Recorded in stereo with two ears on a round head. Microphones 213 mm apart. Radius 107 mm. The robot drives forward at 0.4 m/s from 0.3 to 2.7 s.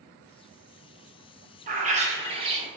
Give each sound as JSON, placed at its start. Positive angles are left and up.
{"t": 1.7, "sound": "a bird", "side_deg": -35, "distance_m": 0.6}